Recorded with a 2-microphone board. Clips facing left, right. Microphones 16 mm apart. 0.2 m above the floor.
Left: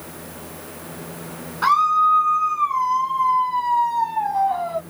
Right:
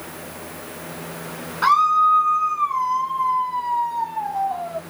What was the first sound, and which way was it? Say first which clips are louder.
A scream: right 1 dB; 5° right (ahead or behind).